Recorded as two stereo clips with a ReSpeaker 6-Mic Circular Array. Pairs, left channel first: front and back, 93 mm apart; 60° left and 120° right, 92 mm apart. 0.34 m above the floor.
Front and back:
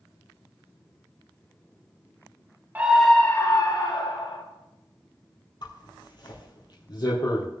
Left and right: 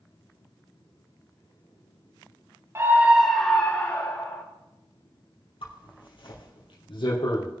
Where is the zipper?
40° left, 3 m.